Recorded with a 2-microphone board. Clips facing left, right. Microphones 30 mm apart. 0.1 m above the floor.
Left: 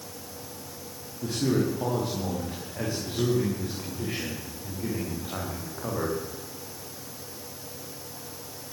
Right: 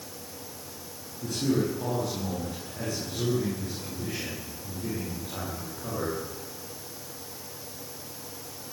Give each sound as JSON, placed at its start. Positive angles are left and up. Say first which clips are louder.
{"t": 1.2, "sound": "a man speaking", "louder": "left 1 dB", "side_deg": 25, "distance_m": 8.0}